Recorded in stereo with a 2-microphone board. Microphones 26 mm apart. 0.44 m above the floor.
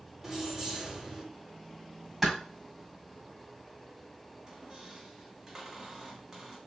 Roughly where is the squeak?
Right.